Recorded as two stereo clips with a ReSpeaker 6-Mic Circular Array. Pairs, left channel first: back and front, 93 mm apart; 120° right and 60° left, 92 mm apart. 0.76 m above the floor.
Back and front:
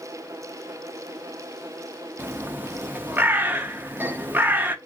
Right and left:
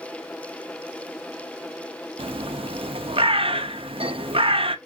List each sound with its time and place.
2.2 s a bird: 70° left, 0.5 m